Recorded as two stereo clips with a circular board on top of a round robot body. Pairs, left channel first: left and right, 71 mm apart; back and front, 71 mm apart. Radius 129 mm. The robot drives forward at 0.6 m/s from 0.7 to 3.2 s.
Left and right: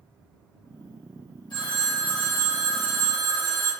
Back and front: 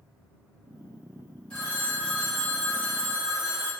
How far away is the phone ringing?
About 1.4 m.